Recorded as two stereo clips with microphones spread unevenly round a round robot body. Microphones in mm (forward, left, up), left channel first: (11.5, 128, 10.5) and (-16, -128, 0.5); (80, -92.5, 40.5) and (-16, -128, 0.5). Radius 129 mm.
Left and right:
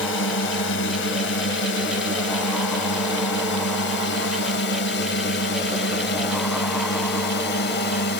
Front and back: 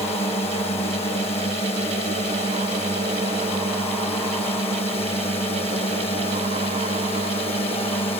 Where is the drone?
60° left; by 8.2 s 55° left.